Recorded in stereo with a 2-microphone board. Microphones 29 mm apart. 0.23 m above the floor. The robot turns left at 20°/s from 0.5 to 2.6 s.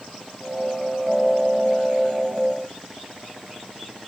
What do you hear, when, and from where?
Only background noise.